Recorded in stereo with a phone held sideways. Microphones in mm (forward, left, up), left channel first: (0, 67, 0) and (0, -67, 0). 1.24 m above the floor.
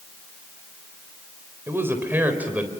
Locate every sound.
1.7 s a man speaking: 20° right (ahead or behind), 4 m; by 2.7 s 10° right (ahead or behind), 4 m